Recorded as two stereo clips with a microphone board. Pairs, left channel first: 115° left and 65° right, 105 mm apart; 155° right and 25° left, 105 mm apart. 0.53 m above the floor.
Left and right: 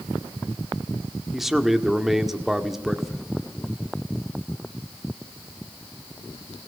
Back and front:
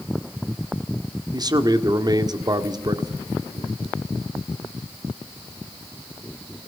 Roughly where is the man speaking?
Ahead.